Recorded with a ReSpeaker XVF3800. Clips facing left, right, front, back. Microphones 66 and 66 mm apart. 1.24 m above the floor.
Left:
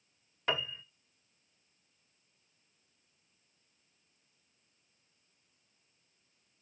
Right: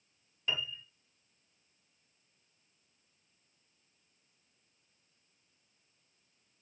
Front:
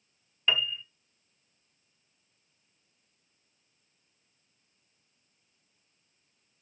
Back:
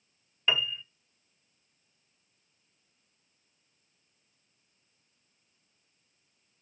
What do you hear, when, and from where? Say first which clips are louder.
0.5 s a piano: left 3 dB, even; 100° left, 0.9 m